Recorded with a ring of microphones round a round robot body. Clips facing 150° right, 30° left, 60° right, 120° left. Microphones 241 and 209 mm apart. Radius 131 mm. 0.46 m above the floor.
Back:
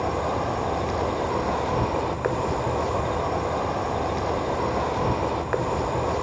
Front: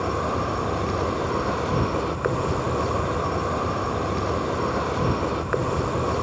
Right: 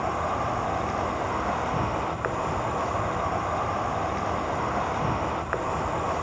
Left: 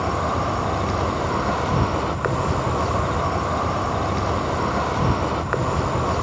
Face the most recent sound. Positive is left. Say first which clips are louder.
# even, left 5 dB
turn(degrees=100)